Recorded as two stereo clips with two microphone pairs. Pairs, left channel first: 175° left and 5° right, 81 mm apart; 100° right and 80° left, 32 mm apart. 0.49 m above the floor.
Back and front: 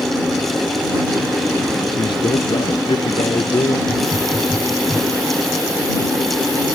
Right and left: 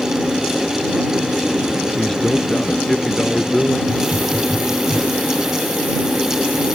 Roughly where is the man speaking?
Behind.